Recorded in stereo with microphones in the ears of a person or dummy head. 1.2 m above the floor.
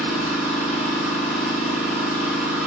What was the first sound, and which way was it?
An engine running, 10° right (ahead or behind).